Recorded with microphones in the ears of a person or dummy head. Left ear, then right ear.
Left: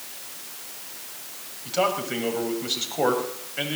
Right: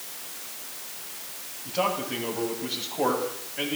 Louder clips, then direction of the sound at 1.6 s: Left 3 dB; 80° left.